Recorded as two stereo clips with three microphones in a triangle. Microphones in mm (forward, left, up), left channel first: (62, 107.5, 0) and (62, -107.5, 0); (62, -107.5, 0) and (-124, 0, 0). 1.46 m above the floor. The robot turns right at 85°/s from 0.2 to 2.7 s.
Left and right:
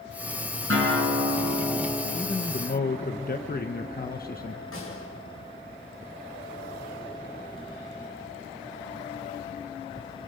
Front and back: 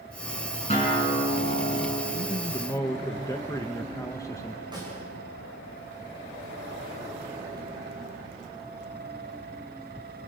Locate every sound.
0.7 s a guitar: 90° right, 7 m; by 2.0 s 25° left, 7 m
2.1 s a man speaking: 5° right, 1.2 m; by 4.6 s 45° left, 1.2 m
4.7 s a snare drum: 80° left, 7.5 m